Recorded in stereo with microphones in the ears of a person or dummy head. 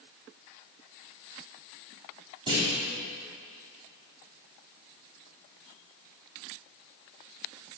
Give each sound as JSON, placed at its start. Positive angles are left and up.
{"t": 2.5, "sound": "a clunk", "side_deg": -30, "distance_m": 3.5}